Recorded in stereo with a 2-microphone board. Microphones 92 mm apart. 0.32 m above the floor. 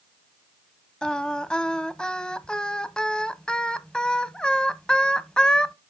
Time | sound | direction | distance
1.0 | singing | 10° left (ahead or behind) | 0.5 m